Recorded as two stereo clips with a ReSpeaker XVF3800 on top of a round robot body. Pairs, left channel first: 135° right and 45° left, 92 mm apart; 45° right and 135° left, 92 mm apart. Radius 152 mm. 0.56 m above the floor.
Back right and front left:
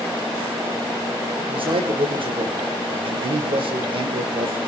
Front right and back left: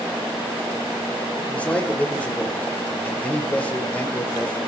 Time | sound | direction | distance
1.4 | a man speaking | 30° left | 2.5 m